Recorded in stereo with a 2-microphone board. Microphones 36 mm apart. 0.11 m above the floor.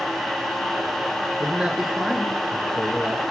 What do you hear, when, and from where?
1.4 s a man speaking: 30° right (ahead or behind), 1.2 m; by 3.2 s 25° left (ahead or behind), 1.9 m